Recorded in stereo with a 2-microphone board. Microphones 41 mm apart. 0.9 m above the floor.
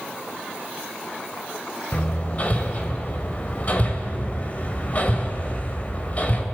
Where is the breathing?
No breathing in this recording.